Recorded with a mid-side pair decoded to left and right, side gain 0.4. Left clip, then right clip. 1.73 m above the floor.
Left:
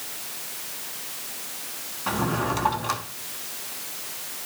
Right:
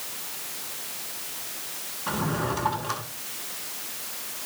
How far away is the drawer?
About 7 m.